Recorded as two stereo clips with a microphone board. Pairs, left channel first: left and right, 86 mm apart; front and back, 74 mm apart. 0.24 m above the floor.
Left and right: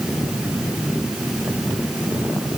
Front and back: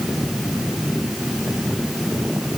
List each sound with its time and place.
Only background noise.